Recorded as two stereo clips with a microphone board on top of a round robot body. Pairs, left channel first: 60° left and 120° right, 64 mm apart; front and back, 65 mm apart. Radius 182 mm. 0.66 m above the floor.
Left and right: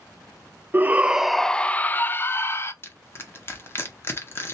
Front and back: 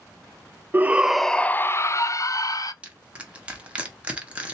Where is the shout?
150° right, 0.6 m; by 2.7 s 15° left, 1.0 m.